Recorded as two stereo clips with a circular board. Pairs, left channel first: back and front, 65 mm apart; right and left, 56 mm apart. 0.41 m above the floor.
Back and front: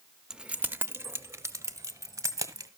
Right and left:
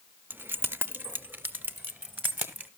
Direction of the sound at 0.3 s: 75° left.